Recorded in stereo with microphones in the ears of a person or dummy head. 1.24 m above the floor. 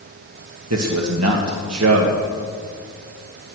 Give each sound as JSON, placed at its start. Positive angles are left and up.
{"t": 0.7, "sound": "a man speaking", "side_deg": -75, "distance_m": 1.4}